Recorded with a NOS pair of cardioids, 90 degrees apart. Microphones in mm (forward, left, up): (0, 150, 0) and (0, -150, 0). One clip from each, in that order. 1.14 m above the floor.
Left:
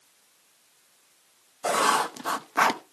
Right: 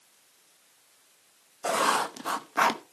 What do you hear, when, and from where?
1.6 s writing: 15° left, 0.8 m